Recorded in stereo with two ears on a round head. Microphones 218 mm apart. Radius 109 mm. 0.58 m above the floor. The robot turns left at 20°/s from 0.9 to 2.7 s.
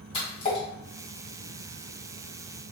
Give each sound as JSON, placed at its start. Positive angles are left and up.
{"t": 0.1, "sound": "a splash", "side_deg": 25, "distance_m": 1.7}